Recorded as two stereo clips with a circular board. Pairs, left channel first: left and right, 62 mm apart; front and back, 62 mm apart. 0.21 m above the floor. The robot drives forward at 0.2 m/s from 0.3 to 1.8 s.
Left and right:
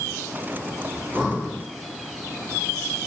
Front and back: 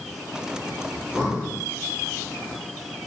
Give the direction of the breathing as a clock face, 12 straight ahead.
6 o'clock.